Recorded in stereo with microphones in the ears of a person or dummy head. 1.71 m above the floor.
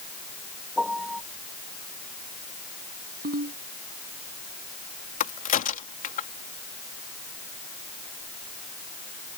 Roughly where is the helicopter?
I don't hear a helicopter.